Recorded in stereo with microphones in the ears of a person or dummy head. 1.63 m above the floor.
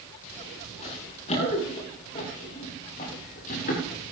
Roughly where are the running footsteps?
Left.